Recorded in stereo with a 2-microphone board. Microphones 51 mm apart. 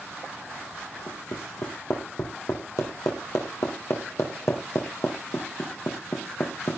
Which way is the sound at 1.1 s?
75° left (ahead or behind).